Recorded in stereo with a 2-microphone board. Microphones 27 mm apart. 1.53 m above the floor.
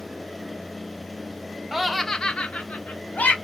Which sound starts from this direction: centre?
Laughter, at 1.7 s.